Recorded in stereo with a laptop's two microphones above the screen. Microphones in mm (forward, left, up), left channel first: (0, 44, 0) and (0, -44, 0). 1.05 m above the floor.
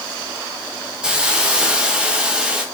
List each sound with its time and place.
1.0 s a hiss: 10° right (ahead or behind), 1.4 m